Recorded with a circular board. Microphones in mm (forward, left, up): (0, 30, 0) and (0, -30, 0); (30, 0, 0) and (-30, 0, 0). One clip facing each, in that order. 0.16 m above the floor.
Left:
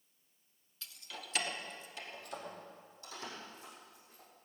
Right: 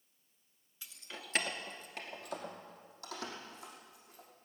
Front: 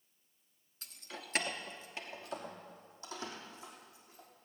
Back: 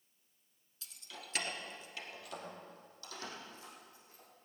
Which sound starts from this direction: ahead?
Keys jangling, at 0.8 s.